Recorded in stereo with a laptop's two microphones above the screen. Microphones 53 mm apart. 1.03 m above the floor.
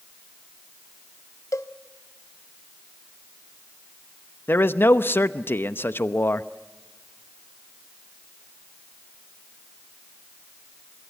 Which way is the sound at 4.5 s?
45° left (ahead or behind).